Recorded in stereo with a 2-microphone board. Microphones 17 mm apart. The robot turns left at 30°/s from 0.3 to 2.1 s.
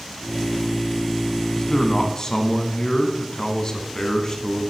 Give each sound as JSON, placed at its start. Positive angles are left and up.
{"t": 1.6, "sound": "a man speaking", "side_deg": 45, "distance_m": 1.3}